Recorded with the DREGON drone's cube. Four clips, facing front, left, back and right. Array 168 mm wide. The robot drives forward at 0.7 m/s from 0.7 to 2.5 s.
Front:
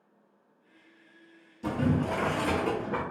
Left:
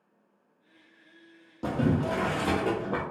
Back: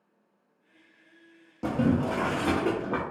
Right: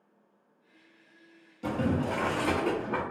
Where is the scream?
No scream in this recording.